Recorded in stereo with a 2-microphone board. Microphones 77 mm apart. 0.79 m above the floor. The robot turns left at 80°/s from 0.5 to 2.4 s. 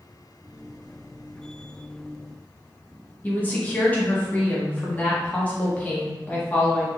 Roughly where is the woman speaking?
Centre.